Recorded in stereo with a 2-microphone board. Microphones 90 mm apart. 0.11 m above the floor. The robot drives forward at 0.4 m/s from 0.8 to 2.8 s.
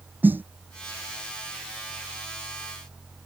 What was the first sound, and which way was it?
A snare drum, 20° right (ahead or behind).